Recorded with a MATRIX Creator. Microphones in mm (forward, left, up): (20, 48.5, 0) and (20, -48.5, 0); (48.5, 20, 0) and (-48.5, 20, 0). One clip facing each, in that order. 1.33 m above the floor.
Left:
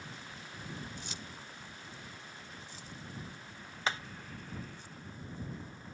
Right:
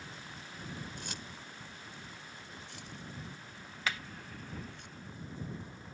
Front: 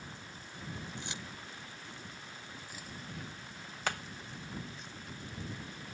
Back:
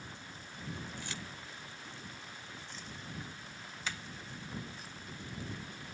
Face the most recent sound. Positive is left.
turn(degrees=30)